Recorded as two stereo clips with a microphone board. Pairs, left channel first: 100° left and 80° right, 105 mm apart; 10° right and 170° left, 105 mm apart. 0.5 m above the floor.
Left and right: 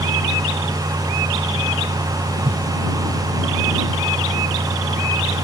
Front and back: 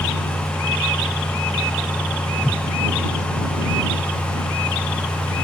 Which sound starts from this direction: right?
A whoosh, at 2.4 s.